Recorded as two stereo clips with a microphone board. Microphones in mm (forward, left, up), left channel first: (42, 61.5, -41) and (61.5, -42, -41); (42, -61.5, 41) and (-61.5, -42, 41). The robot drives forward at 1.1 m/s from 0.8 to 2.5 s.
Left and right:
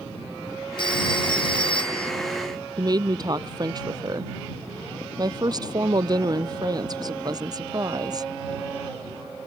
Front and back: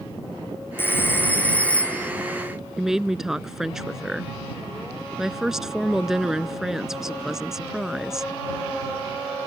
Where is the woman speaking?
105° right.